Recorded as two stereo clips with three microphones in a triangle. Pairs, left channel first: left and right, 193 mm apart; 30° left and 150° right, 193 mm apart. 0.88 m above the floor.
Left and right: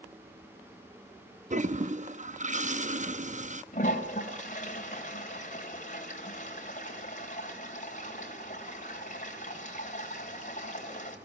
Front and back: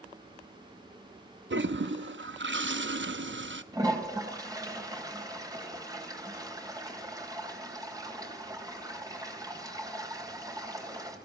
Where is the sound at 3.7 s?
140° left, 3.5 m.